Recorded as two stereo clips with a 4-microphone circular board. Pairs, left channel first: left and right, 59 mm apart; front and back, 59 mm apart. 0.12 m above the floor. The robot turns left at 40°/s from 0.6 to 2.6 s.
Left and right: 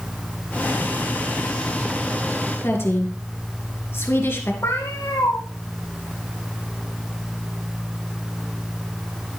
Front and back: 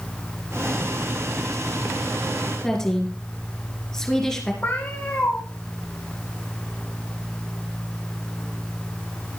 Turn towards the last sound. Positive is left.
turn(degrees=60)